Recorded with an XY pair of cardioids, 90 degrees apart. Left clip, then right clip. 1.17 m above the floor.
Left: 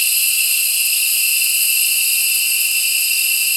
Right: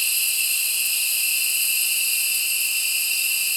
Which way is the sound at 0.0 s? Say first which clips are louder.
Left 6 dB; 60° left.